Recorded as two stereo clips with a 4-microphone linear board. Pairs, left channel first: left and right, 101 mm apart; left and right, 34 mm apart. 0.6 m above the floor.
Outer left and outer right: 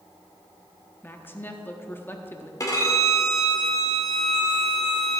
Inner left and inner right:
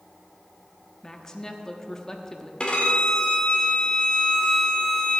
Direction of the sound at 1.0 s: 20° left (ahead or behind).